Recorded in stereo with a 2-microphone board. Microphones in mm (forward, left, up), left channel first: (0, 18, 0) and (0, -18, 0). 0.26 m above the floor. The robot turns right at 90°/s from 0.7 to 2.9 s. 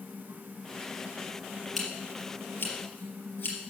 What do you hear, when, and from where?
1.8 s scissors: centre (ahead or behind), 4 m; by 3.6 s 75° left (ahead or behind), 4 m